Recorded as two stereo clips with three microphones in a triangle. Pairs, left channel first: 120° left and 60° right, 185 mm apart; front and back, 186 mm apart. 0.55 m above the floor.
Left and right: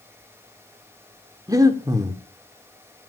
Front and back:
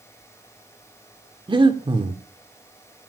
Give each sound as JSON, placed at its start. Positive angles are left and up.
{"t": 1.5, "sound": "breathing", "azimuth_deg": -125, "distance_m": 1.5}